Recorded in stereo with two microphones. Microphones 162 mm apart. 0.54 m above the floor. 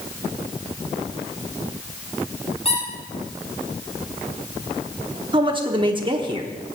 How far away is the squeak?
About 4.5 m.